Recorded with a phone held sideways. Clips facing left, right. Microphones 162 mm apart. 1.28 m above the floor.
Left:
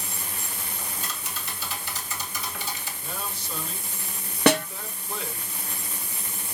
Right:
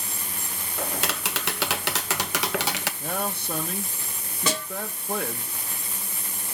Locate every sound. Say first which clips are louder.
0.8 s tapping: right 12 dB; 80° right, 0.8 m
3.0 s a man speaking: right 7 dB; 55° right (ahead or behind), 1.1 m
4.5 s a snare drum: left 9 dB; 65° left (ahead or behind), 0.8 m